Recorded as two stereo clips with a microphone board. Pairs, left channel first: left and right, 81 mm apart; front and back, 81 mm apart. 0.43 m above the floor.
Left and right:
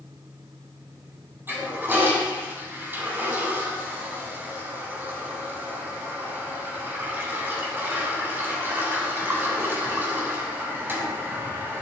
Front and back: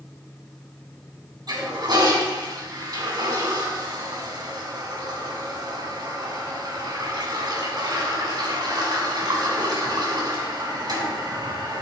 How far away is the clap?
I don't hear a clap.